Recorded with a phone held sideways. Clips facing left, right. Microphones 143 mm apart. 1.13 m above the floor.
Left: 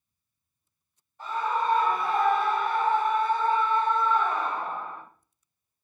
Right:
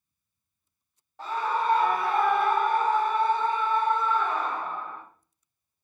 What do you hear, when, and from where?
1.2 s a scream: 80° right, 1.4 m; by 5.0 s 10° left (ahead or behind), 1.7 m